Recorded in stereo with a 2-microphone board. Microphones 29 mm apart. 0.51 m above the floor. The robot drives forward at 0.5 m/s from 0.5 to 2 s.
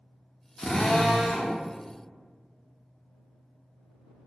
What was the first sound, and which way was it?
A drill, 30° left (ahead or behind).